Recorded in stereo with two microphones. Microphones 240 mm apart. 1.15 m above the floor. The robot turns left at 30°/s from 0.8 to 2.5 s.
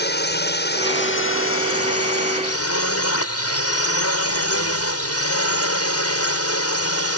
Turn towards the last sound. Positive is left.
turn(degrees=85)